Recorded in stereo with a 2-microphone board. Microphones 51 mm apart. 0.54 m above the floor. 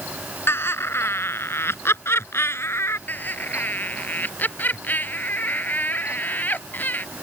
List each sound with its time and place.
0.5 s laughter: 50° left (ahead or behind); by 3.0 s 55° left (ahead or behind)
3.1 s laughter: 35° left (ahead or behind)